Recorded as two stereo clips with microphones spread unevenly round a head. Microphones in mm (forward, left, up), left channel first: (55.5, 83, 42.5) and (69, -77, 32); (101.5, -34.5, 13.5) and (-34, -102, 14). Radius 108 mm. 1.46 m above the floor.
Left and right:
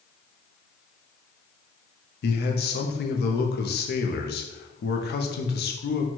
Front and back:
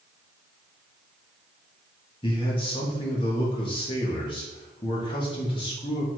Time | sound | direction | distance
2.2 | a man speaking | 90° left | 0.7 m